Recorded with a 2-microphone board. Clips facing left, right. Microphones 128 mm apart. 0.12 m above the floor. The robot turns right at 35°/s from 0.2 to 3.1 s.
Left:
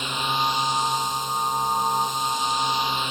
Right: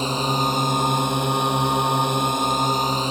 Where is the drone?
140° right; by 3.1 s 40° right.